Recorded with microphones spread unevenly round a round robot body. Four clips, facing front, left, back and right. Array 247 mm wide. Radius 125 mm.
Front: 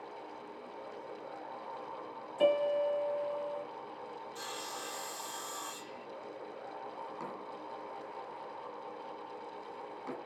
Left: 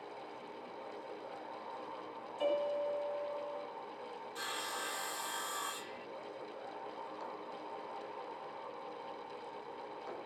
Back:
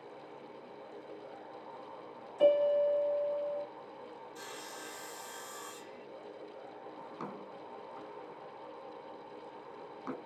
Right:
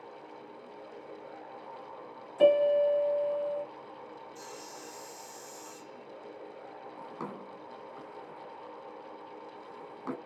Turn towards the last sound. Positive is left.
turn(degrees=-95)